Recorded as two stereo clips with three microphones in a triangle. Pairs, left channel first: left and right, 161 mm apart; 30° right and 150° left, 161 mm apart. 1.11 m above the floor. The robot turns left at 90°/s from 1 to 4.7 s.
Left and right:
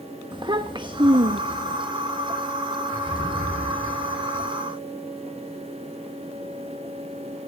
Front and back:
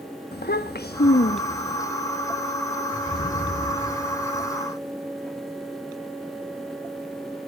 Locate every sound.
0.3 s a child speaking: 30° right, 0.9 m; by 1.8 s 100° right, 0.9 m
3.1 s an explosion: 5° left, 8 m; by 4.5 s 125° right, 8 m